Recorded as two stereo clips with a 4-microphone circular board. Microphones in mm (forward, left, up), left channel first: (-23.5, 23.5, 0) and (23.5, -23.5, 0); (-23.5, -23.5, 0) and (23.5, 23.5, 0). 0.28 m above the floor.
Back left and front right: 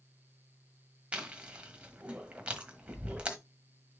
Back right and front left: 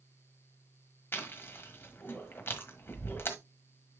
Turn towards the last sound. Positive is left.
turn(degrees=-110)